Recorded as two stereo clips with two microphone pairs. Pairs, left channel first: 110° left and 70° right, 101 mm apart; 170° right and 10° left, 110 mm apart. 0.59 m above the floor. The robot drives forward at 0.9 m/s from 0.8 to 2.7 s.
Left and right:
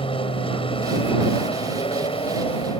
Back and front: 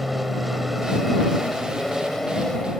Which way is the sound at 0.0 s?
95° left.